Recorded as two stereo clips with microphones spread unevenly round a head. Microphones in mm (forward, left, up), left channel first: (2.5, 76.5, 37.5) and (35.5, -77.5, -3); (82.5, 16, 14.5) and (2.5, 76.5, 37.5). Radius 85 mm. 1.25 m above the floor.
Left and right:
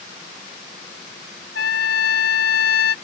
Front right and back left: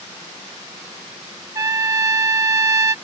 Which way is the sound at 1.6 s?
95° left.